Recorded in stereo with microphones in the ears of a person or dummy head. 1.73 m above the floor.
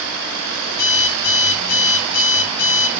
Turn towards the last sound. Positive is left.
turn(degrees=80)